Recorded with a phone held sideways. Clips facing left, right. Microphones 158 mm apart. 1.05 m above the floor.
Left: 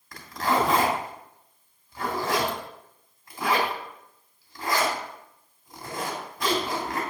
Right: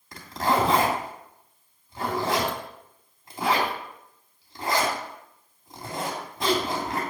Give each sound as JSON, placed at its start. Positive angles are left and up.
{"t": 0.1, "sound": "a zipper", "side_deg": -25, "distance_m": 3.0}